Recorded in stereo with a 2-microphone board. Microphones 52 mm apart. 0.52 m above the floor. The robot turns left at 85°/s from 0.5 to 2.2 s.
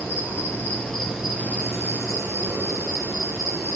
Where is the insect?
50° left, 3.5 m; by 3.8 s 95° right, 3.5 m.